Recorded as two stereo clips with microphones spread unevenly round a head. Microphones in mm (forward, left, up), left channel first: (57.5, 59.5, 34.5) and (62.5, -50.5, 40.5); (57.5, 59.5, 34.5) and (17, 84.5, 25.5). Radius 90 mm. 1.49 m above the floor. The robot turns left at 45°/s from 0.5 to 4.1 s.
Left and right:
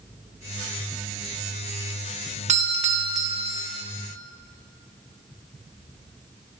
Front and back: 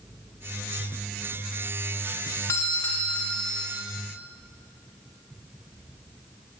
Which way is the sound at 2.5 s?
80° right.